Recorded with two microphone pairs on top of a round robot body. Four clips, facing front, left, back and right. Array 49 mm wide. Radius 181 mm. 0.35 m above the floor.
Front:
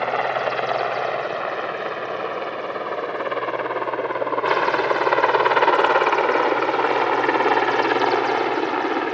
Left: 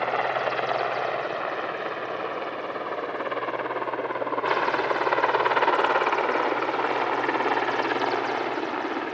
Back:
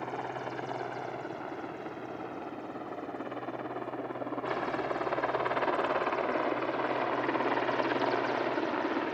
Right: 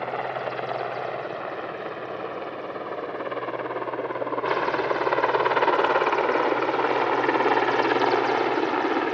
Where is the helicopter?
20° left; by 9.1 s 25° right.